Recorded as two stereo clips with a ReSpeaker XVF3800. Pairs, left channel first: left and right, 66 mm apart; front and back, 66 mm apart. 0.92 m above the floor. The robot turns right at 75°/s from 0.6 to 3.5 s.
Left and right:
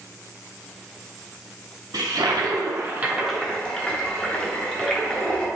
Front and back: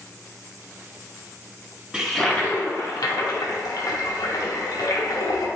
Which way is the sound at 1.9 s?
105° right.